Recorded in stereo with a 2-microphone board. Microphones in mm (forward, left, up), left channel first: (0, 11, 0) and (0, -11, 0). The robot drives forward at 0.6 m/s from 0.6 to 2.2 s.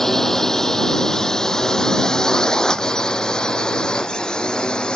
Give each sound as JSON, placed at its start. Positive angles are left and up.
{"t": 0.0, "sound": "a drone", "side_deg": 20}